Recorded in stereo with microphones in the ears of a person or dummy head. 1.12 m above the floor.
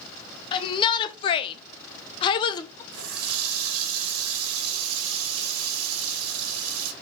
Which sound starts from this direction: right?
A running tap, at 2.9 s.